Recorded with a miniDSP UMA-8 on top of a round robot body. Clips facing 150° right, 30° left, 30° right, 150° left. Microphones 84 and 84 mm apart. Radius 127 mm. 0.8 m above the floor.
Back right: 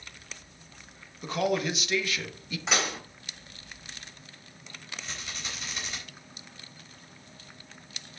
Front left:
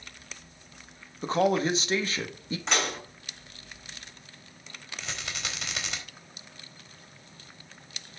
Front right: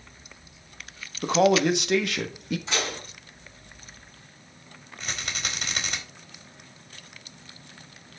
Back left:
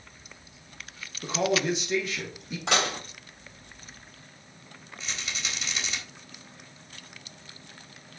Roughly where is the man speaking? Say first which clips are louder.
Front left 4 dB, front right 6 dB; ahead right.